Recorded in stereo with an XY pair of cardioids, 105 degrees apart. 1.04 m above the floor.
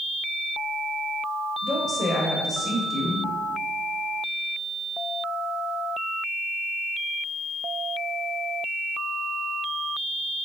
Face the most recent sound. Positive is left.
turn(degrees=35)